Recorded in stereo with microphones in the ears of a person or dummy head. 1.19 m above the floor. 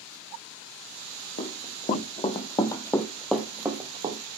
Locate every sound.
1.4 s running footsteps: 40° left (ahead or behind), 3.5 m; by 4.2 s 35° right (ahead or behind), 1.8 m